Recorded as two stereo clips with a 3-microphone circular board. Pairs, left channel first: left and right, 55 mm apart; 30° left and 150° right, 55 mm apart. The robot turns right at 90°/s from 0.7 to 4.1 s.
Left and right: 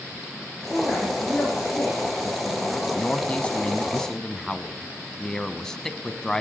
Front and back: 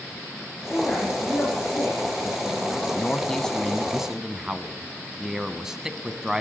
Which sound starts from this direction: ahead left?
A man speaking, at 2.9 s.